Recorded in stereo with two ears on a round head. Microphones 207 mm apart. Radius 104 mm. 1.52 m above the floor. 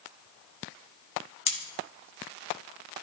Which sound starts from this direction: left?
Cutlery clinking, at 1.5 s.